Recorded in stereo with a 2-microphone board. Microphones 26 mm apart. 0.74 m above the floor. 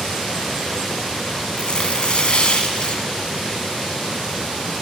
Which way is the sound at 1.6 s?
50° left (ahead or behind).